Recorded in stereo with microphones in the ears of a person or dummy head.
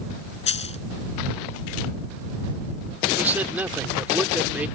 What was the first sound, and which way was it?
A dropped coin, 35° left (ahead or behind).